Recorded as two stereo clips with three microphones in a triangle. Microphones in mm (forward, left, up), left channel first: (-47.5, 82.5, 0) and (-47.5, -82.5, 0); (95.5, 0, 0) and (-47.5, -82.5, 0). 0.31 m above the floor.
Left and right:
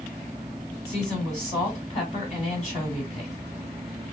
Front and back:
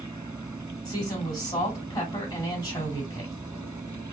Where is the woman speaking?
85° left, 2 m.